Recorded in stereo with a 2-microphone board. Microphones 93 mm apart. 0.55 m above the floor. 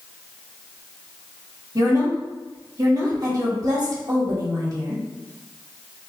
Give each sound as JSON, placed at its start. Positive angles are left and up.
{"t": 1.8, "sound": "a woman speaking", "side_deg": -40, "distance_m": 1.2}